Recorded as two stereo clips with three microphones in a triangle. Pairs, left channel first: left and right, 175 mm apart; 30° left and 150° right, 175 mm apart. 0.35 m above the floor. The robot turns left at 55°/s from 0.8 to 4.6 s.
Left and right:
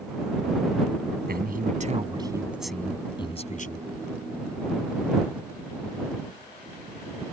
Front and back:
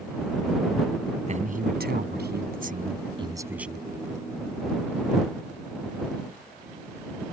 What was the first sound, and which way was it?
A man speaking, 105° right.